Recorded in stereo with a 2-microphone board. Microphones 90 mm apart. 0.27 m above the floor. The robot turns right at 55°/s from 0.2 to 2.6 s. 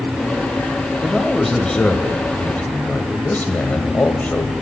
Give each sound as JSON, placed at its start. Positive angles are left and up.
{"t": 1.0, "sound": "a man speaking", "side_deg": -5, "distance_m": 1.0}